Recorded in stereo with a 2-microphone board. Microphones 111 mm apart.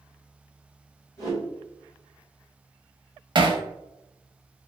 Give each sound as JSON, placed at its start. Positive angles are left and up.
{"t": 1.2, "sound": "a whoosh", "side_deg": 30, "distance_m": 1.6}
{"t": 3.4, "sound": "hammering", "side_deg": -45, "distance_m": 0.5}